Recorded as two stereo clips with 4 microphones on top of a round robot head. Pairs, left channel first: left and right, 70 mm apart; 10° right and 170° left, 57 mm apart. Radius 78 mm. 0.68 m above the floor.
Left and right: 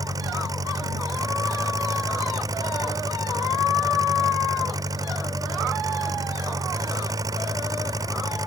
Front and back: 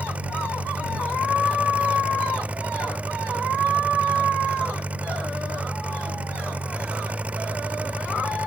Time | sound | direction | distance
0.0 | an engine running | 125° right | ?